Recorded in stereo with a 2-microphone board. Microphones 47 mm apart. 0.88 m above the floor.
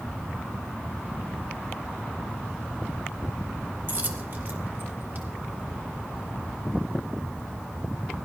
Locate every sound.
3.9 s a dropped coin: 50° right (ahead or behind), 1.5 m